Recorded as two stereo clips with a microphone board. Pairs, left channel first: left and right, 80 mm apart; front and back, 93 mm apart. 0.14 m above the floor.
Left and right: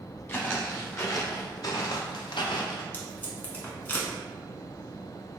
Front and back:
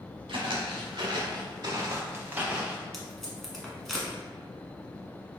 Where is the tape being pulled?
85° left, 1.1 m.